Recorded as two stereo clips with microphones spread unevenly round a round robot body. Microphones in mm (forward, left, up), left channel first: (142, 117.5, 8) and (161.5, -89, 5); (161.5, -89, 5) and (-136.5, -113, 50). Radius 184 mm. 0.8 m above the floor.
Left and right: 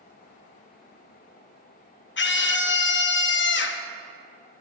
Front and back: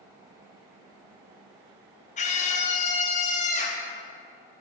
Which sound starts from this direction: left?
A scream, at 2.2 s.